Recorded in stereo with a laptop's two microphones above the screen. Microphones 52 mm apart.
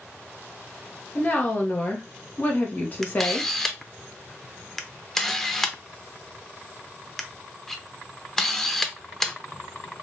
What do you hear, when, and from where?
1.1 s a woman speaking: 35° left (ahead or behind), 0.9 m
3.0 s a camera shutter: 5° left (ahead or behind), 0.5 m